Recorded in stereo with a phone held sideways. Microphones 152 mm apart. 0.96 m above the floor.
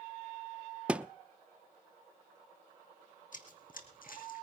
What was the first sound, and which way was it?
A thud, 10° right (ahead or behind).